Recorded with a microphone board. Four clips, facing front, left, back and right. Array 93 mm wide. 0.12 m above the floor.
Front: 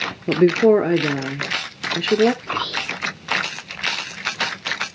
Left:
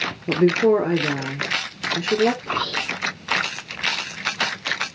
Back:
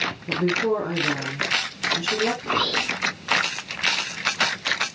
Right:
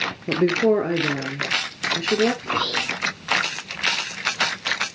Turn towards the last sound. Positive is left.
turn(degrees=-155)